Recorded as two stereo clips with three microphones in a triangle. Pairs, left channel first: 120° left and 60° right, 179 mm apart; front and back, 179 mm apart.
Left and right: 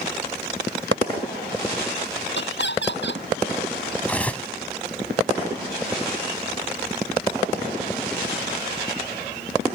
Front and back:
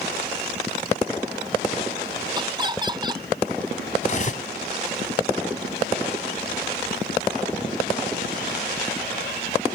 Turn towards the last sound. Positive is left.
turn(degrees=40)